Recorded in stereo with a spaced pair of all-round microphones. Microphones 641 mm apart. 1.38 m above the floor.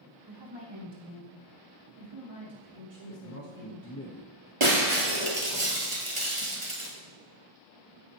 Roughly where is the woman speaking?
Right.